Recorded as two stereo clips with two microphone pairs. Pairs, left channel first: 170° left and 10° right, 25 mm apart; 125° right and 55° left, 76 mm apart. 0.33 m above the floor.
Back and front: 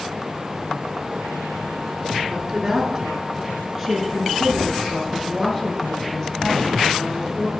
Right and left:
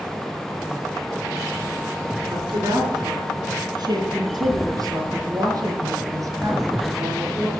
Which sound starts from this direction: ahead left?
A woman speaking, at 2.3 s.